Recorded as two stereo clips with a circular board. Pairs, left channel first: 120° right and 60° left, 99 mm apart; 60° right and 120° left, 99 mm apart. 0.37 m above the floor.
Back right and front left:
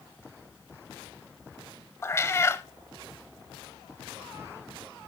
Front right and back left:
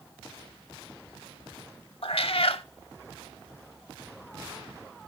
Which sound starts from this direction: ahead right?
A cat meowing, at 2.0 s.